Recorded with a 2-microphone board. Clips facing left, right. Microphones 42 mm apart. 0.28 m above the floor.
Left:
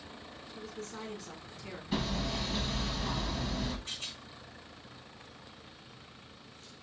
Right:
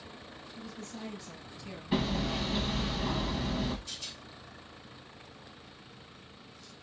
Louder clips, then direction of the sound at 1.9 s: Right 3 dB; 20° right (ahead or behind).